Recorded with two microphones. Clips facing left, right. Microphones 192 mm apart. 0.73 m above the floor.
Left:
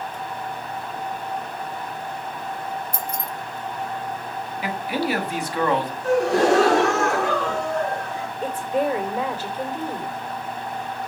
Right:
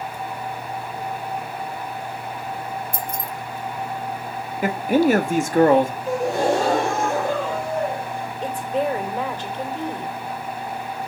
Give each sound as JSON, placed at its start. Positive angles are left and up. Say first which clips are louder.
{"t": 2.9, "sound": "keys jangling", "louder": "right 1 dB", "side_deg": -50, "distance_m": 0.7}
{"t": 4.6, "sound": "a man speaking", "louder": "right 8 dB", "side_deg": -45, "distance_m": 1.2}
{"t": 6.0, "sound": "a gasp", "louder": "left 3 dB", "side_deg": 85, "distance_m": 3.5}
{"t": 8.4, "sound": "a woman speaking", "louder": "left 1 dB", "side_deg": 10, "distance_m": 3.0}